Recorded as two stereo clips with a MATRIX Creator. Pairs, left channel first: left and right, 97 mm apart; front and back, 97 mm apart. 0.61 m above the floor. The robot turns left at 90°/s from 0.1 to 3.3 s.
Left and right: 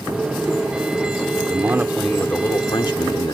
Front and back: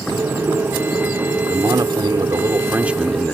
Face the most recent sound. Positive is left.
turn(degrees=70)